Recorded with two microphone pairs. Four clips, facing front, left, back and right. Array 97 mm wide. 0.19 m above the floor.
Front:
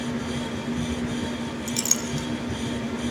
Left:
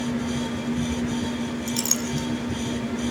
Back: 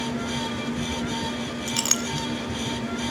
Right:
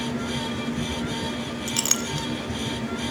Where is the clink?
155° right, 1.3 m.